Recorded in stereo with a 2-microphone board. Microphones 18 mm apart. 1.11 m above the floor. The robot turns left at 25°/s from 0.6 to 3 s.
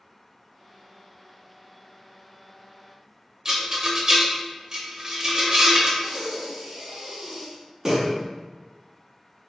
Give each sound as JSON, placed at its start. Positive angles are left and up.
{"t": 3.5, "sound": "a rattle", "side_deg": -40, "distance_m": 0.6}
{"t": 6.0, "sound": "breathing", "side_deg": -25, "distance_m": 0.6}